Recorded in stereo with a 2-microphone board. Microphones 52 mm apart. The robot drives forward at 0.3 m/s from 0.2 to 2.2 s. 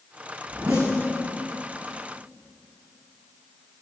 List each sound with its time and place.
0.5 s a zipper: 80° right, 3 m